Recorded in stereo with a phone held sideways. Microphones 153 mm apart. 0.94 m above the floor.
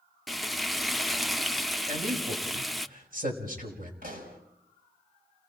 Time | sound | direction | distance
0.3 | frying | centre (ahead or behind) | 0.5 m
1.9 | a man speaking | 65° right (ahead or behind) | 5 m
4.0 | a pop | 65° right (ahead or behind) | 4.5 m